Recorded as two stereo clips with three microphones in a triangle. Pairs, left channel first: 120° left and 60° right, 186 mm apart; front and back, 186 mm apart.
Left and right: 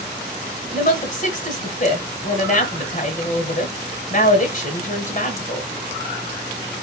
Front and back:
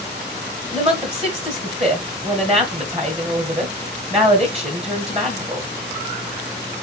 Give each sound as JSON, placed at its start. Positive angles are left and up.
{"t": 0.7, "sound": "a woman speaking", "azimuth_deg": 140, "distance_m": 1.6}